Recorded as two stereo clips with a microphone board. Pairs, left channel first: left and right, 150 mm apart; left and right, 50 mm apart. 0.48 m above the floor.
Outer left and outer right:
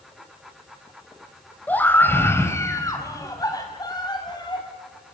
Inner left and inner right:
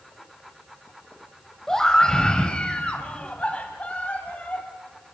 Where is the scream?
10° left (ahead or behind), 2.5 m; by 4.7 s 30° left (ahead or behind), 4 m.